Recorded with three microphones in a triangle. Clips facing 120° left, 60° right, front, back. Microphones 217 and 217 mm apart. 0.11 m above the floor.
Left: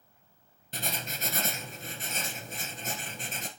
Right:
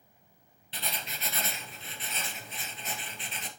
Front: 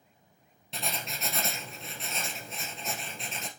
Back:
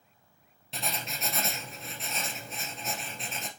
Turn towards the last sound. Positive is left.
turn(degrees=90)